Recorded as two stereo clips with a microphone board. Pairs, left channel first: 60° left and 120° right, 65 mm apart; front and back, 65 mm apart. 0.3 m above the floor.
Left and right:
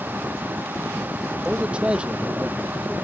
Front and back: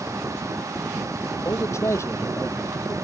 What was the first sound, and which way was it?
A man speaking, 45° right.